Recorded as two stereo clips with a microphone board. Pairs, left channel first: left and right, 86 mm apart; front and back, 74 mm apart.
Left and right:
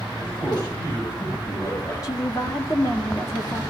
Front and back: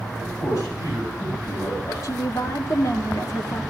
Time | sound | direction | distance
0.2 | a man speaking | 50° left | 8 m
2.0 | a woman speaking | 45° left | 1.7 m